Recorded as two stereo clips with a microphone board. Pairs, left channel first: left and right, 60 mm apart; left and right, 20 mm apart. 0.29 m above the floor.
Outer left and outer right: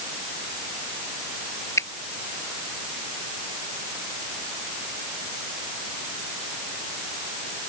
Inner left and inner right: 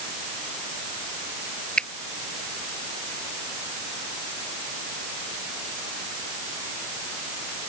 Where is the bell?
I don't hear a bell.